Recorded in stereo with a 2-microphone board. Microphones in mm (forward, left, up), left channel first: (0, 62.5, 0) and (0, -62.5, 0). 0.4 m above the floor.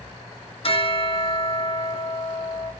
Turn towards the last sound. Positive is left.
turn(degrees=50)  # may be behind; listen again after turning